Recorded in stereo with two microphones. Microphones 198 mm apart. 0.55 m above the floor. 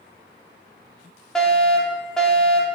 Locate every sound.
1.4 s a fire alarm: 5° left (ahead or behind), 2 m